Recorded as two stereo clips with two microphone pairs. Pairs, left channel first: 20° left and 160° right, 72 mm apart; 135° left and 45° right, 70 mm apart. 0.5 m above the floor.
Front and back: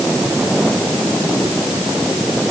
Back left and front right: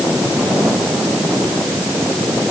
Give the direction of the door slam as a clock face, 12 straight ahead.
No door slam in this recording.